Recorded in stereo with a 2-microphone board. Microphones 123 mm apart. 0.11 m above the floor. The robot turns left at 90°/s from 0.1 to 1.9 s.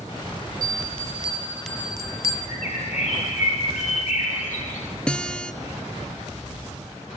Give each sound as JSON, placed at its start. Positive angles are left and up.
{"t": 0.6, "sound": "a bell", "side_deg": -70, "distance_m": 0.6}
{"t": 2.5, "sound": "a bird", "side_deg": 70, "distance_m": 6.5}
{"t": 5.1, "sound": "a guitar", "side_deg": 10, "distance_m": 0.9}